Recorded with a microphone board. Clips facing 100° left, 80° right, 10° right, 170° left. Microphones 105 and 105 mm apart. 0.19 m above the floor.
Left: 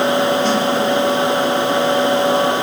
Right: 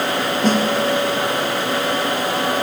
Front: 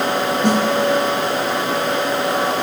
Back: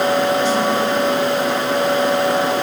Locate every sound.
0.4 s a snare drum: 35° right, 2.5 m